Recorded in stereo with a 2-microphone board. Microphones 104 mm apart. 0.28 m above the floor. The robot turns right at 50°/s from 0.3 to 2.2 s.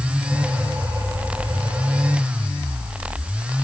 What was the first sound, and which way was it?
Only background noise.